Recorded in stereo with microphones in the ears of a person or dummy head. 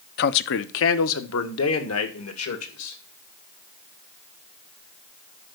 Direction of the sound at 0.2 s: 55° left (ahead or behind).